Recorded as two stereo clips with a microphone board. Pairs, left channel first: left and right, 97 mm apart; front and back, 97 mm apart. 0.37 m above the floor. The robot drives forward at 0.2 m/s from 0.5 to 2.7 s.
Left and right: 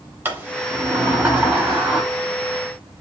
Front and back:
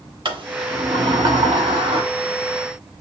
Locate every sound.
0.2 s a sliding door: 155° right, 0.6 m; by 2.0 s 165° right, 0.9 m